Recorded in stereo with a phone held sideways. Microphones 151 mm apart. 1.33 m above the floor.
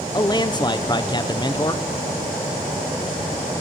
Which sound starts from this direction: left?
A man speaking, at 0.1 s.